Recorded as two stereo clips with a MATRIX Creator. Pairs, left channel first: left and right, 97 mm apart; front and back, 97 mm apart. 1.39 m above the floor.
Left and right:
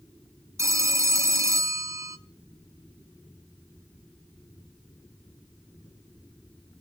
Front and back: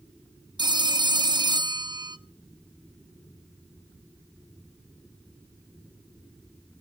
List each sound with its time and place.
0.6 s a phone ringing: 145° right, 0.5 m